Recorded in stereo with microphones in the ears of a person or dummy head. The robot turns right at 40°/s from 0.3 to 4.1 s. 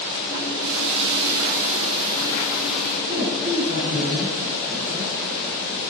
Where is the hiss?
85° right, 8 m; by 3.0 s 10° left, 8 m.